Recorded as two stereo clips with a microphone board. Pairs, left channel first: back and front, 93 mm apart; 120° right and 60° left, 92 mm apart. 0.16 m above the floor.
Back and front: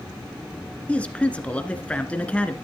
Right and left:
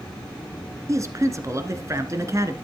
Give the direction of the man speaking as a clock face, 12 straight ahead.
8 o'clock.